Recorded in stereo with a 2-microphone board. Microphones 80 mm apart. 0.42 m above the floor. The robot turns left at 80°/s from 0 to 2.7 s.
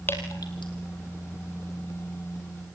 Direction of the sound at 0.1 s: 25° left (ahead or behind).